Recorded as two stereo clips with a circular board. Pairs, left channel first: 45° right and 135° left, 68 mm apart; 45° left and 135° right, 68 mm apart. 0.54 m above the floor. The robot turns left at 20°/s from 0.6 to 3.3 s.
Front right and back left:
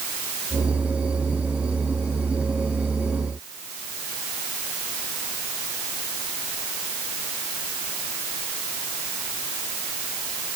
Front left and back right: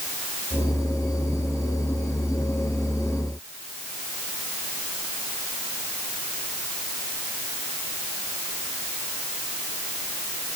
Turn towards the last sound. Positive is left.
No sound to turn to.